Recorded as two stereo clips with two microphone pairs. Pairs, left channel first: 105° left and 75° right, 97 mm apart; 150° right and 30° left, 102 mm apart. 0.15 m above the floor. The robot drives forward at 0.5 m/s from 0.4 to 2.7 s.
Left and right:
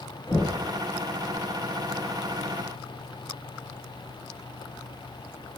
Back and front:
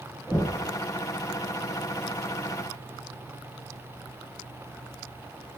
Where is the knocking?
115° left, 1.4 m; by 0.6 s 125° left, 1.5 m.